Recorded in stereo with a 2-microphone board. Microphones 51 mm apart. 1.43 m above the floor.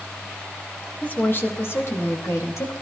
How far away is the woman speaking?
About 1.8 m.